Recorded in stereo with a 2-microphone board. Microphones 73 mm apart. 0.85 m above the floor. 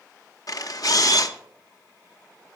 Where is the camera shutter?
55° left (ahead or behind), 0.8 m.